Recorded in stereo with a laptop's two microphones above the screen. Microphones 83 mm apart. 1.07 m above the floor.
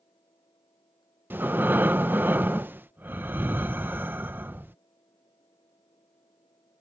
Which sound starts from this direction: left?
A fan, at 0.0 s.